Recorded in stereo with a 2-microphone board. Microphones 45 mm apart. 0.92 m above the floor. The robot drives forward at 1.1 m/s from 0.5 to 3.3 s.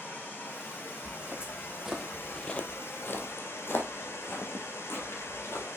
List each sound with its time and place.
0.0 s running water: 40° left (ahead or behind), 5 m; by 5.8 s 75° left (ahead or behind), 3 m
1.0 s footsteps: 25° right (ahead or behind), 3 m; by 5.7 s 70° left (ahead or behind), 4 m